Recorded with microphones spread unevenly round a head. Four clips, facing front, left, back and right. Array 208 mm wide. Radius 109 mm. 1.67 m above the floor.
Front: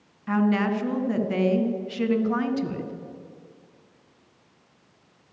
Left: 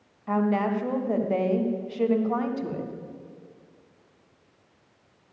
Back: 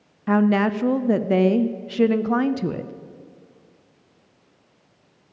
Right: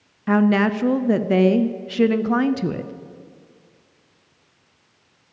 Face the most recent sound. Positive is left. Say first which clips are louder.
# right 7 dB, back 4 dB
turn(degrees=-115)